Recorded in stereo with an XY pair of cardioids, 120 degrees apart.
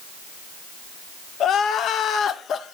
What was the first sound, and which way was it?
Crying, 55° left.